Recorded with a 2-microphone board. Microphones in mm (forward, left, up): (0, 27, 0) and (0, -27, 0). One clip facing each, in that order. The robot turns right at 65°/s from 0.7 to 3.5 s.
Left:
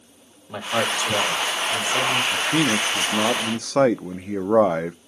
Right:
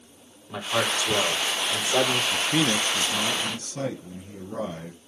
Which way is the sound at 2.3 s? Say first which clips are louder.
Left 3 dB; straight ahead.